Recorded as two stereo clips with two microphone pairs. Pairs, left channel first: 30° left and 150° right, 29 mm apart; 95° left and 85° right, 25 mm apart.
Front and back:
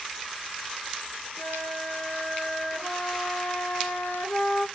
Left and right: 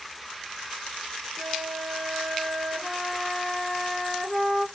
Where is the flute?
30° left, 2.5 m.